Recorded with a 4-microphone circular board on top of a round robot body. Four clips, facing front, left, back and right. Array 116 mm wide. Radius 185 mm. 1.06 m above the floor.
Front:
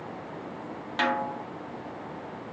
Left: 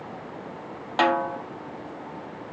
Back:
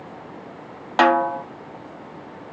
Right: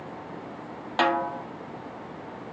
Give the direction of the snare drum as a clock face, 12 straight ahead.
6 o'clock.